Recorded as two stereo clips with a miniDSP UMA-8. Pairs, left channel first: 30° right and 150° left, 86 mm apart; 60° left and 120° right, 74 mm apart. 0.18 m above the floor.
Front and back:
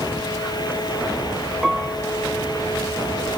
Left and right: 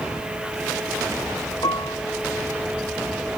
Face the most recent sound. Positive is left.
turn(degrees=60)